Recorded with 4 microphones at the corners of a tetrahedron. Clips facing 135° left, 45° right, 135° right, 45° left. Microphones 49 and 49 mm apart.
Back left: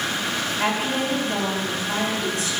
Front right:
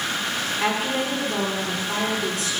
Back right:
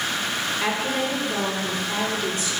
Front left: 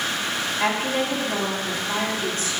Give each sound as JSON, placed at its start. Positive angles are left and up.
{"t": 0.6, "sound": "a woman speaking", "azimuth_deg": 100, "distance_m": 4.0}